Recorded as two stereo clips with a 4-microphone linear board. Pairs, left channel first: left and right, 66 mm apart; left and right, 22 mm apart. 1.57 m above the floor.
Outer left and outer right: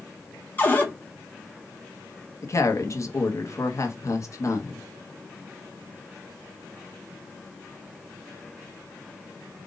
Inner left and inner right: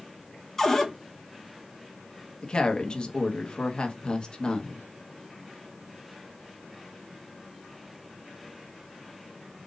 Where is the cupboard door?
25° left (ahead or behind), 1.2 m.